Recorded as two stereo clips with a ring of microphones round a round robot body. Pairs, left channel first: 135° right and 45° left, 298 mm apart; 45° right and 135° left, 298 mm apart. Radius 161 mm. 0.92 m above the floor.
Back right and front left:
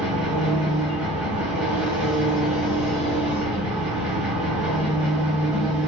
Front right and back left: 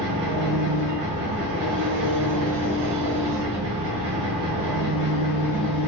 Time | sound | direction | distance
0.0 | an engine running | 130° left | 1.0 m